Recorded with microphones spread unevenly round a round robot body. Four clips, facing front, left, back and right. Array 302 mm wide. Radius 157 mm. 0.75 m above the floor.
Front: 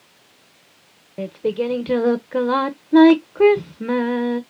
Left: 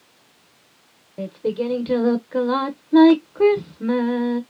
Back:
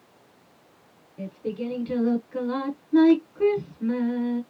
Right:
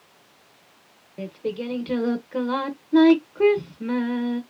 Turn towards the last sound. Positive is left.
turn(degrees=15)